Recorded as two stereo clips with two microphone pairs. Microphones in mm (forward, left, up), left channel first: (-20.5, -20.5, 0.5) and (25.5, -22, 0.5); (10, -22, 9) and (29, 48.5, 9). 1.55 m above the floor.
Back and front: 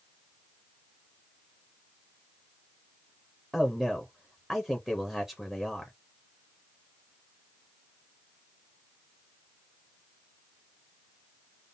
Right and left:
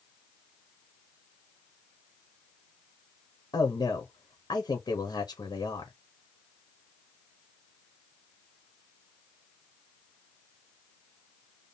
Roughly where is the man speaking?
Right.